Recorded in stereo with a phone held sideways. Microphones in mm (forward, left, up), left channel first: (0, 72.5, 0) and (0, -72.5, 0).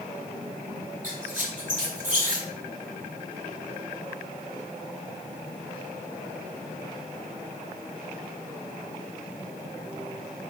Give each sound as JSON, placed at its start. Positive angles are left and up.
{"t": 1.0, "sound": "a squeak", "side_deg": -55, "distance_m": 1.8}